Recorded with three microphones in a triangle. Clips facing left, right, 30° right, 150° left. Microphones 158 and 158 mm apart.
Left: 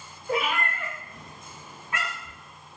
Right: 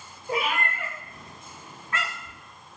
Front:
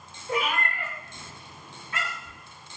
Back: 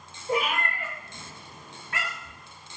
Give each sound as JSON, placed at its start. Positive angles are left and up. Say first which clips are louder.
{"t": 0.3, "sound": "a cat meowing", "louder": "left 1 dB, back 1 dB", "azimuth_deg": -155, "distance_m": 1.3}